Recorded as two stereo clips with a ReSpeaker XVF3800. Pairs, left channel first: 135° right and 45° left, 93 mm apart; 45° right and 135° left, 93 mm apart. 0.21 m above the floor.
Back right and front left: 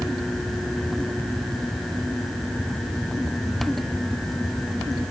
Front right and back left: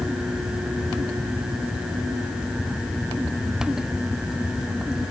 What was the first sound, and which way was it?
Only background noise.